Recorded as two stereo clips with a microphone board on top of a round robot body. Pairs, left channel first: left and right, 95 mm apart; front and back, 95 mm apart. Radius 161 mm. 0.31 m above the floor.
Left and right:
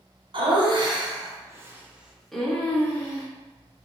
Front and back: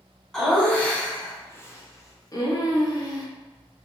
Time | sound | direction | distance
0.3 | laughter | 85° right | 1.7 m